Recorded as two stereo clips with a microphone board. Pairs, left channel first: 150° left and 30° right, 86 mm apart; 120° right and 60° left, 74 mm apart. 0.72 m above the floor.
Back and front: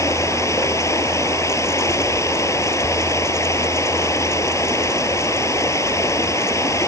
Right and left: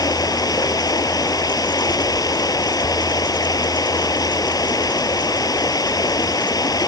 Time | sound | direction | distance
0.0 | running water | 155° right | ?